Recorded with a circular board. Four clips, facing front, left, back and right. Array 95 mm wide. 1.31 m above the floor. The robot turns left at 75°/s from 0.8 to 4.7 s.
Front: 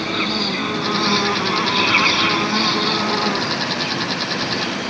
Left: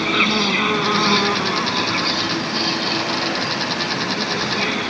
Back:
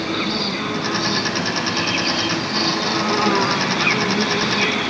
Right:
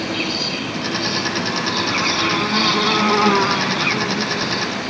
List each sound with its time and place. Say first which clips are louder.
0.0 s an insect: left 4 dB, even; 85° left; by 4.9 s 150° left